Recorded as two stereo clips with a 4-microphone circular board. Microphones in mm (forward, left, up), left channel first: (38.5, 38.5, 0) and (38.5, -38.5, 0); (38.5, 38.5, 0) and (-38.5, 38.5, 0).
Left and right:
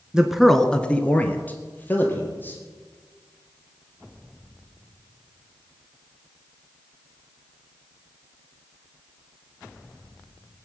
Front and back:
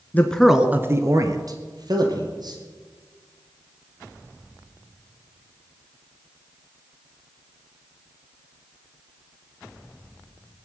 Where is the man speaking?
25° right, 1.1 m; by 2.6 s 155° left, 3.5 m.